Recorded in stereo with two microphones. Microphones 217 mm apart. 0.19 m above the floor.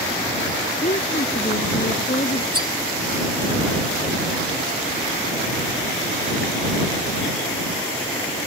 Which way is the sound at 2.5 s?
80° right.